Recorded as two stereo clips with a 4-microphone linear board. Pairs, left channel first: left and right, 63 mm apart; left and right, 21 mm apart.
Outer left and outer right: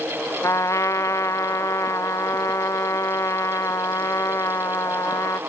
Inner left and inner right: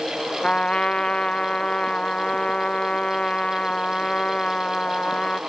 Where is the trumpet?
55° left (ahead or behind), 0.6 m.